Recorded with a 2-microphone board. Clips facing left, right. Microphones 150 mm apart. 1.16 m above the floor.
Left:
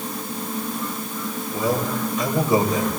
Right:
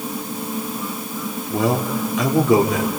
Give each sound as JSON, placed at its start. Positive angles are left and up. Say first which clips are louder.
{"t": 1.5, "sound": "a man speaking", "louder": "right 3 dB", "side_deg": -70, "distance_m": 3.0}